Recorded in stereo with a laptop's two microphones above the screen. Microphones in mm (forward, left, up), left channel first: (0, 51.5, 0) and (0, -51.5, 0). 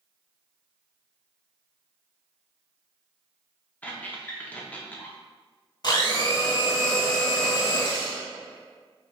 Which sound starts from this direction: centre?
A squeak, at 3.8 s.